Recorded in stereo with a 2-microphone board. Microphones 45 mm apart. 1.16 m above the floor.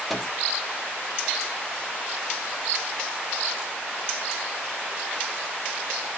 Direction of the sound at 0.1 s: 5° right (ahead or behind).